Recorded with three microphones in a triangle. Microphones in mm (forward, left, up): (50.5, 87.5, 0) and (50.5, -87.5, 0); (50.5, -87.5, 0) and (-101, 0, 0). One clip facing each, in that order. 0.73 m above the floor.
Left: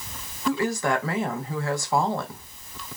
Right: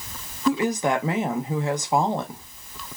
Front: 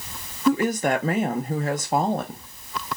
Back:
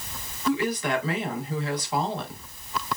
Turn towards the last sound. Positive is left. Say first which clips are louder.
# right 2 dB, front 5 dB
turn(degrees=-25)